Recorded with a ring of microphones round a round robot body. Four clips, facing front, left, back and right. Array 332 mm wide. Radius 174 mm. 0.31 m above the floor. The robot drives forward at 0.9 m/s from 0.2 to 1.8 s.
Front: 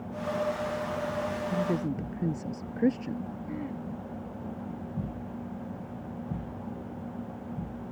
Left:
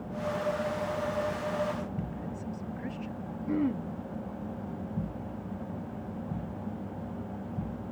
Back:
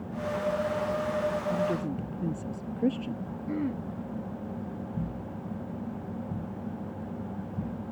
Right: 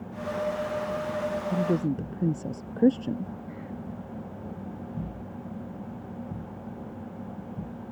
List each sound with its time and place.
1.5 s a woman speaking: 80° right
3.5 s throat clearing: 115° left